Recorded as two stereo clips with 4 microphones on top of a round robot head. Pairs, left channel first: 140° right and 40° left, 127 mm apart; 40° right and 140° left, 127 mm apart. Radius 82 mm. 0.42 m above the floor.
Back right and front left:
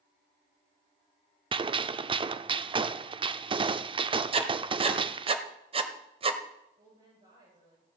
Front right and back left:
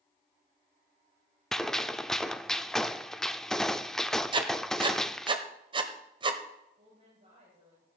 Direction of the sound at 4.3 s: 85° left.